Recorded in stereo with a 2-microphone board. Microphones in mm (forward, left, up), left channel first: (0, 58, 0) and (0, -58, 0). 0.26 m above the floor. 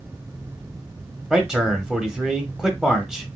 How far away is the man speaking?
About 0.9 m.